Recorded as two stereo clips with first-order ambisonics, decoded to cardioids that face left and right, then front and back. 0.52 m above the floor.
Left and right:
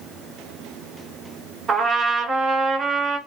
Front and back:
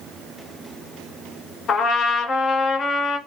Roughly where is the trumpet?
Ahead right.